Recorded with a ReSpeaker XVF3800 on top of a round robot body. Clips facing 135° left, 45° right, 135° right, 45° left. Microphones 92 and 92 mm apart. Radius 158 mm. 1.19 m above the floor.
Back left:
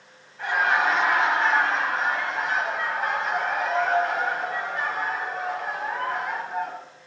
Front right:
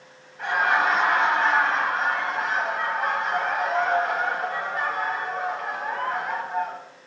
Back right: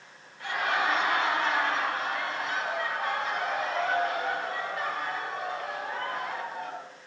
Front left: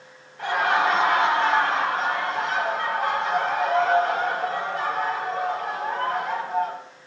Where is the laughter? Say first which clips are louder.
Front right 1 dB, front left 7 dB; 45° left, 6 m.